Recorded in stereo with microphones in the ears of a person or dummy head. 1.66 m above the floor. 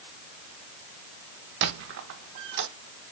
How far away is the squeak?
About 0.9 m.